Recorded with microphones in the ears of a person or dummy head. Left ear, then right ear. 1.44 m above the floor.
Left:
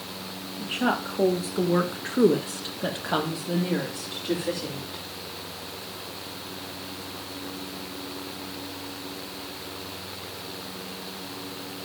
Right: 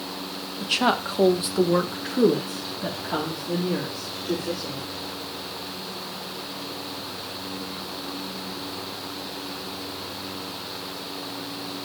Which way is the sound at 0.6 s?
50° right (ahead or behind).